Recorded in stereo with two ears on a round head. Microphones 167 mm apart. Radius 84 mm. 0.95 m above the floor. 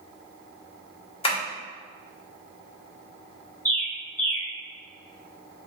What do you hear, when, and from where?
1.2 s tapping: 30° left (ahead or behind), 1.3 m
3.6 s a bird: 10° left (ahead or behind), 0.7 m